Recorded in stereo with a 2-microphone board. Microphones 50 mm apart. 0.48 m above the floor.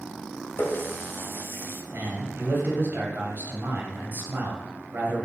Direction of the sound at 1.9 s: 45° right (ahead or behind).